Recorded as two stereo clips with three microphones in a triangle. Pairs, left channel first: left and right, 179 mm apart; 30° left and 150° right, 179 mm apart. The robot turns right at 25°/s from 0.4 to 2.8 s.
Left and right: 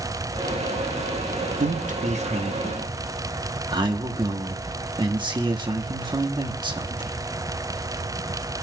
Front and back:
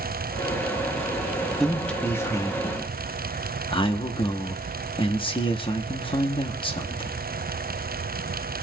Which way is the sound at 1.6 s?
60° right.